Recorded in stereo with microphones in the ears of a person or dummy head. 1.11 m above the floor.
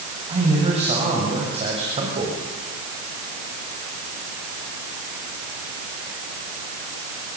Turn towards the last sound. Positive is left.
turn(degrees=-30)  # may be behind; listen again after turning